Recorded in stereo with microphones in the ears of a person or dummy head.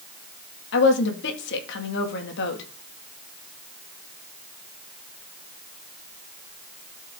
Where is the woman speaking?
70° left (ahead or behind), 2 m.